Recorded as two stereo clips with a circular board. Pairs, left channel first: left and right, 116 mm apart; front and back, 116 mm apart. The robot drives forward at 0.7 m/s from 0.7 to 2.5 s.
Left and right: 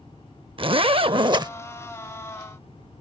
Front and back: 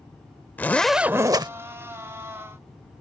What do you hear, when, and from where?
0.6 s a zipper: 70° right; by 1.5 s 140° right